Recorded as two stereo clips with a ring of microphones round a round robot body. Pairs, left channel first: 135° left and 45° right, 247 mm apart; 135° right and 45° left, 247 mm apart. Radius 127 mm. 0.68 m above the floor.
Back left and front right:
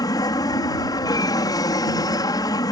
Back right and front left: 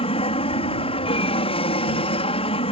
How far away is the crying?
No crying in this recording.